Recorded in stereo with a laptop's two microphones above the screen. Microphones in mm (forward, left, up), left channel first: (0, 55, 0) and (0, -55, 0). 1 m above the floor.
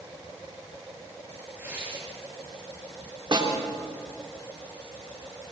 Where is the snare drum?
45° right (ahead or behind), 3.5 m.